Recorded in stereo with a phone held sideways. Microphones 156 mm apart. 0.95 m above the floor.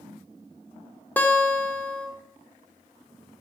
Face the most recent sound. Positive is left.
turn(degrees=10)  # may be behind; listen again after turning